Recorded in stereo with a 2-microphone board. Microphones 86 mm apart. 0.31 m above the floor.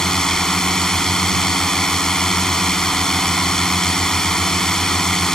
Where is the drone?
5° left (ahead or behind).